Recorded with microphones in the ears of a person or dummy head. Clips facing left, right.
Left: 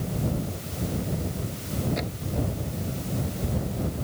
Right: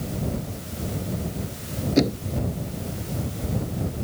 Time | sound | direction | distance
2.0 | knocking | 60° right (ahead or behind) | ?